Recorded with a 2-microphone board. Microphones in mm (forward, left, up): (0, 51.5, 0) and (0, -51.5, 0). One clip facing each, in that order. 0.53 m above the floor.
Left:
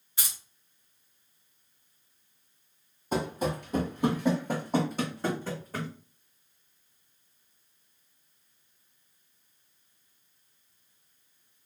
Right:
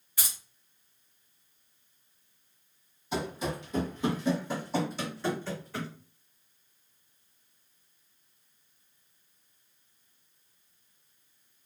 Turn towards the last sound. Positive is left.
turn(degrees=40)  # may be behind; listen again after turning